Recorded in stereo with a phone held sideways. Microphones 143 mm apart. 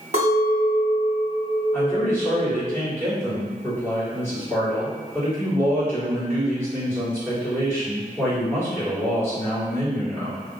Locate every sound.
0.1 s a clink: 50° right (ahead or behind), 1.0 m
1.7 s a man speaking: 15° left (ahead or behind), 2.0 m